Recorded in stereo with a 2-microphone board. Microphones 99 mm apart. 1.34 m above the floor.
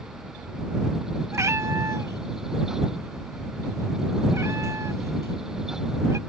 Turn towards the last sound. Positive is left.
turn(degrees=-30)  # may be behind; listen again after turning